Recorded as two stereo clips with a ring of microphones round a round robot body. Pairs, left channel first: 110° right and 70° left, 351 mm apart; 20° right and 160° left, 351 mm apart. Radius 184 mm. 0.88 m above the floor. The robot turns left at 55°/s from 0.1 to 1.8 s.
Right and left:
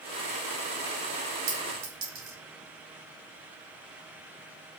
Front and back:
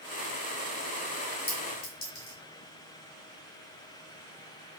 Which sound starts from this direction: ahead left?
A clink, at 1.5 s.